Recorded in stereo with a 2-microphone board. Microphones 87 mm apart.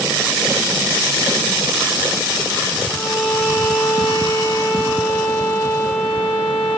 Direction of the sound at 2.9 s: 30° left (ahead or behind).